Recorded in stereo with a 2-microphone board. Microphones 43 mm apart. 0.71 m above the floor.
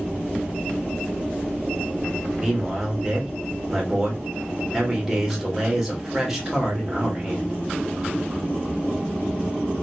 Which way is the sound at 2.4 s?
10° right (ahead or behind).